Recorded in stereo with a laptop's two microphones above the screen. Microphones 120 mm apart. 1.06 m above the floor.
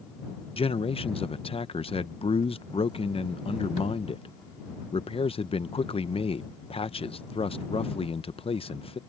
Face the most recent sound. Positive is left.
turn(degrees=50)  # may be behind; listen again after turning